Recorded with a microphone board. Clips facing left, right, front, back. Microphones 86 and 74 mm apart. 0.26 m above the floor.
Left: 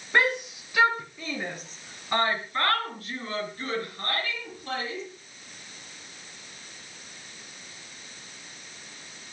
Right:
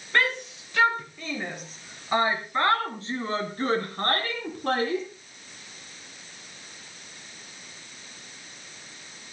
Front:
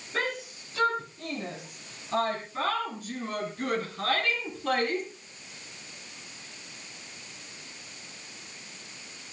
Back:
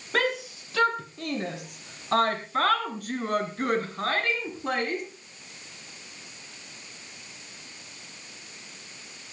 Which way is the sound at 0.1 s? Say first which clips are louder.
Left 1 dB, back 5 dB; 165° left.